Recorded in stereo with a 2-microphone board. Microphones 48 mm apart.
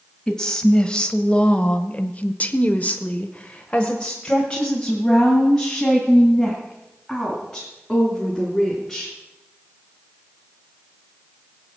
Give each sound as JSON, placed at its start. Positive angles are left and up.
{"t": 0.3, "sound": "a woman speaking", "side_deg": 15, "distance_m": 1.9}